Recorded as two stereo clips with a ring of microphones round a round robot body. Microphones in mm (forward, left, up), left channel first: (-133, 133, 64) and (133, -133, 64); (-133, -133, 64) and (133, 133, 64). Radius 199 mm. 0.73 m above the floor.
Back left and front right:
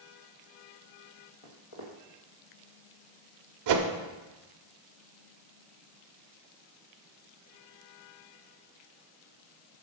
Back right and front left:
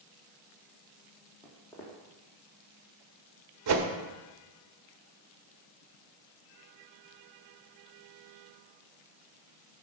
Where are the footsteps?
140° left, 2 m.